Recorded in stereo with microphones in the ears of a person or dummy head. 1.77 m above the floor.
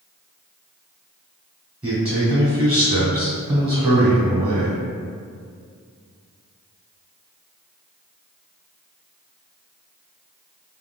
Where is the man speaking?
15° right (ahead or behind), 0.8 m.